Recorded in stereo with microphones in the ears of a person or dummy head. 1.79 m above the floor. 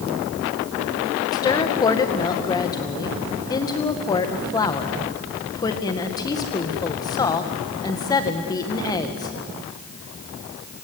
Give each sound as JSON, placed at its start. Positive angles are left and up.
{"t": 1.3, "sound": "a woman speaking", "side_deg": 20, "distance_m": 1.9}